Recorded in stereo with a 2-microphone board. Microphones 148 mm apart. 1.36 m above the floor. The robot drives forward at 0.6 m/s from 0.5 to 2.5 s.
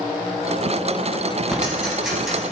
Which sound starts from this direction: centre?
Ticking, at 1.5 s.